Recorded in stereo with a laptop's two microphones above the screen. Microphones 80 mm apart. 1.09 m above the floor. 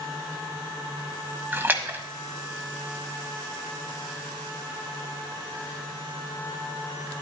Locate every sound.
1.5 s a splash: 25° right (ahead or behind), 1.3 m